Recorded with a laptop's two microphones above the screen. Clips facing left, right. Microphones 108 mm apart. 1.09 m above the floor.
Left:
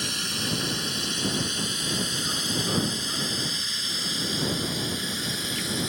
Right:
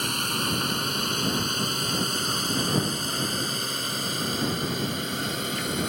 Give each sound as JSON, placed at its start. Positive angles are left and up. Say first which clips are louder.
{"t": 0.0, "sound": "a drone", "louder": "right 4 dB", "side_deg": -50}